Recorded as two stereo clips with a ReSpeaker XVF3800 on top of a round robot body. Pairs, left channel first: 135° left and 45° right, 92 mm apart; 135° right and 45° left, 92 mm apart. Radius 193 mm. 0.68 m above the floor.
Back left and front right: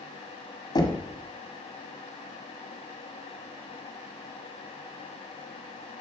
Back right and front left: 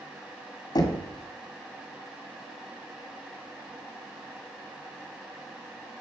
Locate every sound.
0.8 s knocking: 175° left, 2 m